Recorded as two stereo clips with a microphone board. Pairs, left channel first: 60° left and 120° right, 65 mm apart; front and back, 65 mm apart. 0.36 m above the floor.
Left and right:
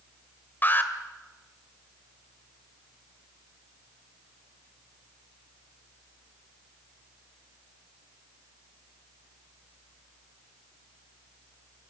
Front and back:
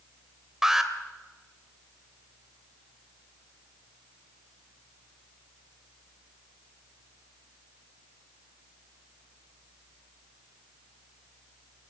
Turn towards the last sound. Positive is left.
turn(degrees=100)